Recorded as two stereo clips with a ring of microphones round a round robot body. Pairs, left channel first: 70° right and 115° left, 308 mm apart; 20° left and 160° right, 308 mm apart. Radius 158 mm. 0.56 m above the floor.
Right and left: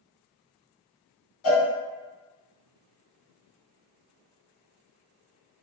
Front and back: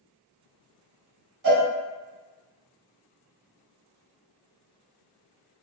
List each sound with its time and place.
1.4 s a cowbell: 115° right, 0.8 m